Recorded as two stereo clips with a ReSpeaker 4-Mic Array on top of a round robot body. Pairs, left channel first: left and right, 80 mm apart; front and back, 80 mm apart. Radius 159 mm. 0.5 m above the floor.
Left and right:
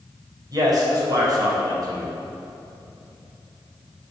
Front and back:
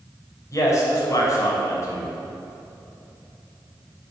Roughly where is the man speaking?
Ahead right.